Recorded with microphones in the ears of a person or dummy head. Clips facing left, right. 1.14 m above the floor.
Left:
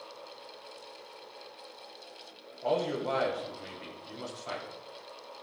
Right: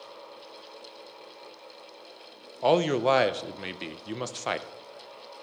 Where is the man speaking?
75° right (ahead or behind), 0.7 m.